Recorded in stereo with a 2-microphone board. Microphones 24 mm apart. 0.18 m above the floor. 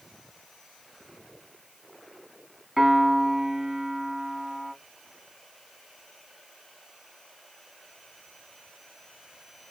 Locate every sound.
2.8 s a piano: 20° right (ahead or behind), 0.9 m